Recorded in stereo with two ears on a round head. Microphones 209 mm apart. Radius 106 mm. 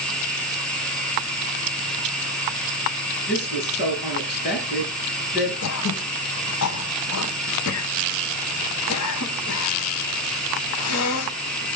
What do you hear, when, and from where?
0.0 s running water: 5° left (ahead or behind), 4.5 m
3.3 s a woman speaking: 45° left (ahead or behind), 9 m
5.6 s throat clearing: 65° left (ahead or behind), 0.9 m